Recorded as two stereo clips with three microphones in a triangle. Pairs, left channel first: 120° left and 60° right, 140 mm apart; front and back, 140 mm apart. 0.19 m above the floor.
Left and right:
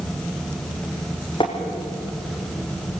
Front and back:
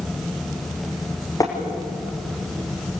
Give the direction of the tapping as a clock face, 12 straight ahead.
10 o'clock.